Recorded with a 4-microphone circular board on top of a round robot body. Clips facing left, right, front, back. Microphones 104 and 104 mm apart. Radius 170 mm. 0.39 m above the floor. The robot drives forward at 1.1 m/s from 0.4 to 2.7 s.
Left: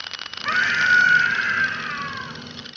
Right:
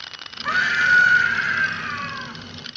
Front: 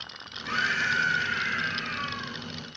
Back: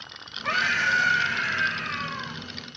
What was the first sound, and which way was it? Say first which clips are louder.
A scream: right 1 dB, back 3 dB; 165° right.